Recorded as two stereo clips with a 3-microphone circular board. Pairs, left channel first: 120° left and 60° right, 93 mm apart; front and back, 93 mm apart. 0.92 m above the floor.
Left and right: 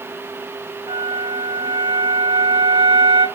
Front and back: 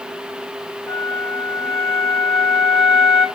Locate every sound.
0.9 s a flute: 55° right, 2.5 m